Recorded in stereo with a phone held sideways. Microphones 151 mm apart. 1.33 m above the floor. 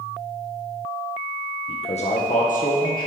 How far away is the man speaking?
About 0.9 m.